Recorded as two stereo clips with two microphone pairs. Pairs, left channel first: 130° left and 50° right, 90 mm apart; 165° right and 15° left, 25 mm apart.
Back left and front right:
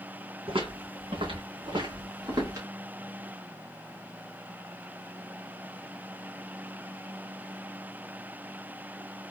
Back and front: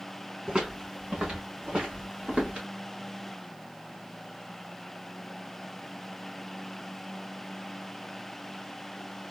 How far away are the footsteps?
About 3 m.